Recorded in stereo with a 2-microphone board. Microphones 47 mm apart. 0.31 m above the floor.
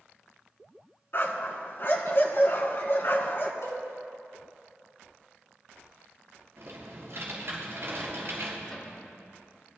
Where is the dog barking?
50° left (ahead or behind), 1.5 m.